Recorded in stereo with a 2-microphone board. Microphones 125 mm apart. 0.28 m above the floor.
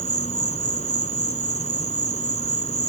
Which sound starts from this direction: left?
An insect, at 0.0 s.